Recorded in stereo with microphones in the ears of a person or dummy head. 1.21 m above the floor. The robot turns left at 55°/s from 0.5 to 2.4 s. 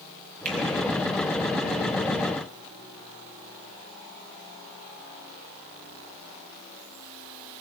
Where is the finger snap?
45° right (ahead or behind), 7 m; by 0.6 s 50° right (ahead or behind), 7 m.